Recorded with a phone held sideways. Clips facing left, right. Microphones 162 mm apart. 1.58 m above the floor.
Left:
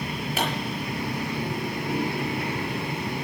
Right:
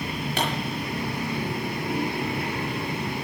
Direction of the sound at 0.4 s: 5° left (ahead or behind).